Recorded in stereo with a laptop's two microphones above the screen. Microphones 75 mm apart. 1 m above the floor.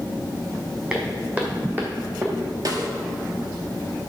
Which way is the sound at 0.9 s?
15° right (ahead or behind).